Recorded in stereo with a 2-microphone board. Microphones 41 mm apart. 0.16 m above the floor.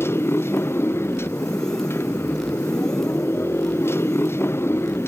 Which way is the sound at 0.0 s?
85° left.